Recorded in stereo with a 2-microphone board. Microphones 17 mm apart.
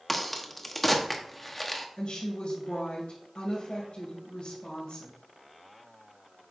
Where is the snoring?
No snoring in this recording.